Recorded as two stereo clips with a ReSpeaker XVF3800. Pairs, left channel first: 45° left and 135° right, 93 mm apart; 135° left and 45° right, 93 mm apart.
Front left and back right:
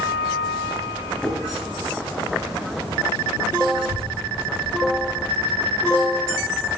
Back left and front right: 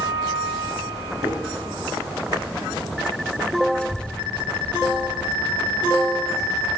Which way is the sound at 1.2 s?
40° right.